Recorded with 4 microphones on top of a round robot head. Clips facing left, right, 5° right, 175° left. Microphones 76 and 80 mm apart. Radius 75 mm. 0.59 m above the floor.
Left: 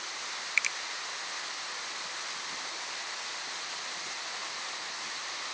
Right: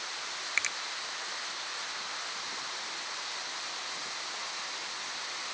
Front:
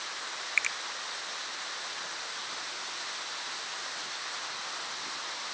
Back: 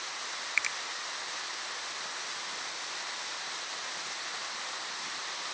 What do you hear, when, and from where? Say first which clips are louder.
0.6 s a finger snap: left 2 dB, front 1 dB; 115° right